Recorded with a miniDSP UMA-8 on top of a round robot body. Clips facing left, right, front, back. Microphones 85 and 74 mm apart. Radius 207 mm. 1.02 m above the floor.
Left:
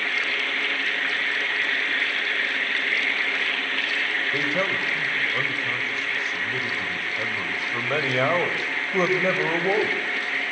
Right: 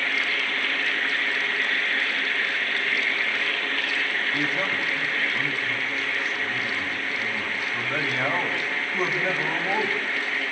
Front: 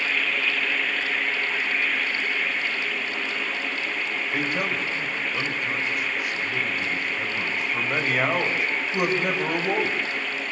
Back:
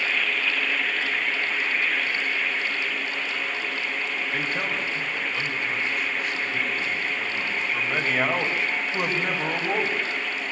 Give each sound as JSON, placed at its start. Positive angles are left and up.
{"t": 4.3, "sound": "a man speaking", "azimuth_deg": 85, "distance_m": 5.5}